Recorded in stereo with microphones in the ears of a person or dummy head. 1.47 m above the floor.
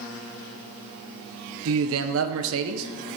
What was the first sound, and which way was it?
A man speaking, 80° right.